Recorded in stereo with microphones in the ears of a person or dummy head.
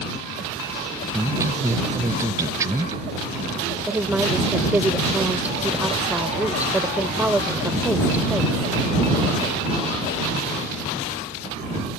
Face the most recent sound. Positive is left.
turn(degrees=-10)  # may be behind; listen again after turning